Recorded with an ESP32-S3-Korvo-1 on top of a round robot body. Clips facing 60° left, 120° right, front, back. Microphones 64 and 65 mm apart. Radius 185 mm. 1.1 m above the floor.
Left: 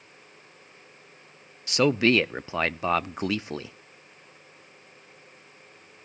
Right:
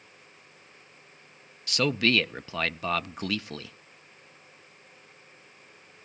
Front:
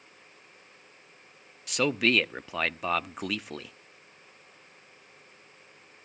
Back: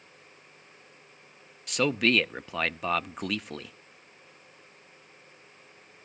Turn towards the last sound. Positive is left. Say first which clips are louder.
# left 4 dB, back 1 dB
turn(degrees=85)